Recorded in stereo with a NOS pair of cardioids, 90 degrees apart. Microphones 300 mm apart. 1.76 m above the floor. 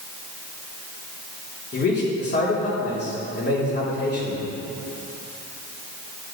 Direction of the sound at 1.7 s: 35° left.